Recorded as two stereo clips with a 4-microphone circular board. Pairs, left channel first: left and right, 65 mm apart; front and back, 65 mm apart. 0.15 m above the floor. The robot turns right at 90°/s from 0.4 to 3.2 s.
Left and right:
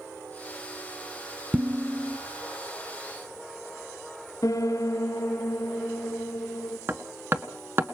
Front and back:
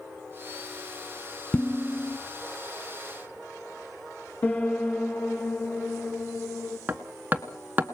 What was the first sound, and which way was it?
Dishes clattering, 55° right.